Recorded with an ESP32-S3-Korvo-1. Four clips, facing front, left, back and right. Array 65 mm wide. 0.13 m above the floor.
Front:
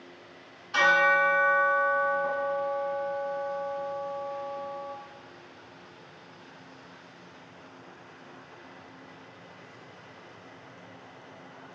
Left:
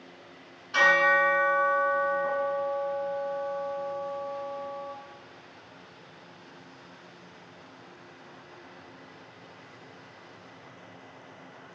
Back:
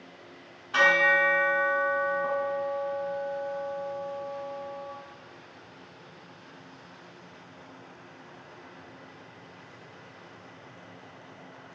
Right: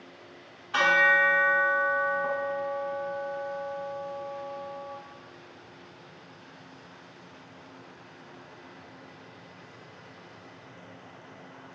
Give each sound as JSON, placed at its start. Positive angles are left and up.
{"t": 0.7, "sound": "a bell", "azimuth_deg": -135, "distance_m": 0.8}